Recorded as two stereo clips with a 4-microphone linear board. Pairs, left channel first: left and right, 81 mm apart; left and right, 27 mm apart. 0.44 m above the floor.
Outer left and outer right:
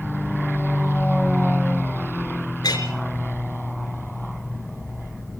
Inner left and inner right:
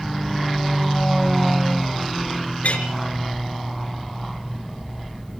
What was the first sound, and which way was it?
A clink, 55° left (ahead or behind).